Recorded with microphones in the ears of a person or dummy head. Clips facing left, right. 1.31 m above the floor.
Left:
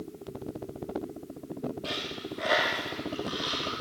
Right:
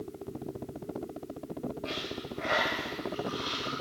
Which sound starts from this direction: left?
A dropped coin, at 1.8 s.